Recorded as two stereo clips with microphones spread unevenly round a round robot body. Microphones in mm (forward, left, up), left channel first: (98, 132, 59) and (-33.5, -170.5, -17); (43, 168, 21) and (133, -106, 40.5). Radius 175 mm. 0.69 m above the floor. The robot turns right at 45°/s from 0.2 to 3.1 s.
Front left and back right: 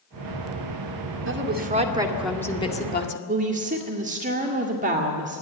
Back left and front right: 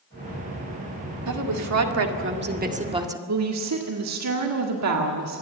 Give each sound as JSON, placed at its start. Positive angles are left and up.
{"t": 1.3, "sound": "a woman speaking", "azimuth_deg": -75, "distance_m": 2.0}
{"t": 3.3, "sound": "a woman speaking", "azimuth_deg": -60, "distance_m": 1.9}